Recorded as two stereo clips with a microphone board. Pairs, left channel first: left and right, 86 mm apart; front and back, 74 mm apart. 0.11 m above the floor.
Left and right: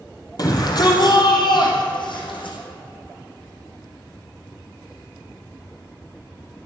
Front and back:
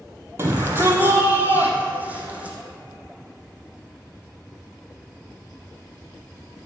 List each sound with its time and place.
0.4 s a shout: 130° left, 3 m; by 2.6 s 110° left, 4.5 m